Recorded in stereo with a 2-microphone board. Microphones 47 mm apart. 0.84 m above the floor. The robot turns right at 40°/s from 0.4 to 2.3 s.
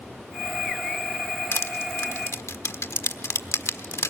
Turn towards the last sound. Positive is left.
turn(degrees=85)